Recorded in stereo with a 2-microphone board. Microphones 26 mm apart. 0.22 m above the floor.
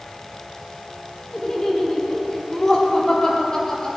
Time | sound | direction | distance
1.3 | laughter | 30° left (ahead or behind) | 5.5 m